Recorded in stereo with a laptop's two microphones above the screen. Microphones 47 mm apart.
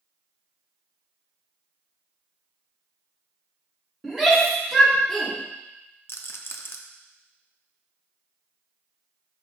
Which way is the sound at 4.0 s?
5° right (ahead or behind).